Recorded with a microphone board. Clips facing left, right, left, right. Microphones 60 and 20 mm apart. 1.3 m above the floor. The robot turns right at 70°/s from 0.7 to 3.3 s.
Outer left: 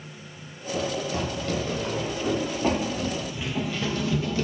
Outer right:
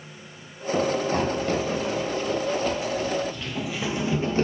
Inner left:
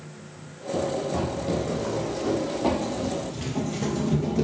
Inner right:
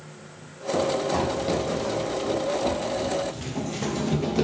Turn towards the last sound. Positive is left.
turn(degrees=-40)  # may be behind; listen again after turning